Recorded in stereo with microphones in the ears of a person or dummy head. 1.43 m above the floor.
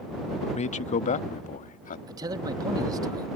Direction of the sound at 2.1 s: 20° right (ahead or behind).